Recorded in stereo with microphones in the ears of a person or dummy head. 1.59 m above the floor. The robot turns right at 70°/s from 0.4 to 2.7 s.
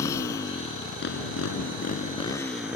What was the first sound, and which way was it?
A motorcycle, 20° left (ahead or behind).